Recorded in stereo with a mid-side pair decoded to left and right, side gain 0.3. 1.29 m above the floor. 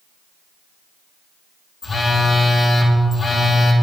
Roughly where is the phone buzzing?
Ahead left.